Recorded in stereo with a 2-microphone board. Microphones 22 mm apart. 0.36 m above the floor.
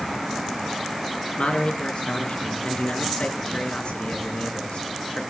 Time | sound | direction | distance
1.4 | a man speaking | 65° left (ahead or behind) | 5 m